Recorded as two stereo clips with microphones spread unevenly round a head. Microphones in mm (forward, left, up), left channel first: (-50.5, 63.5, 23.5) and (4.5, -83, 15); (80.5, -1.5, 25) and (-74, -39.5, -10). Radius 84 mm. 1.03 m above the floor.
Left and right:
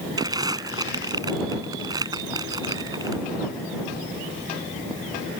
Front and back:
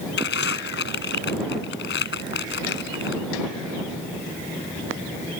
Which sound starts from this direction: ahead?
Crumpling, at 0.2 s.